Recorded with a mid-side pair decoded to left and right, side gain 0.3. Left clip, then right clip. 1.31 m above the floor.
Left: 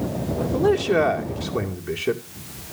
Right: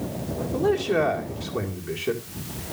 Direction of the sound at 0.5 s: 45° left.